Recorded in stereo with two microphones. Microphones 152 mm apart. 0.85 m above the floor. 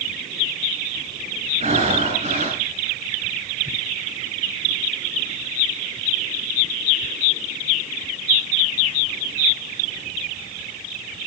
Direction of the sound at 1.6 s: 45° right (ahead or behind).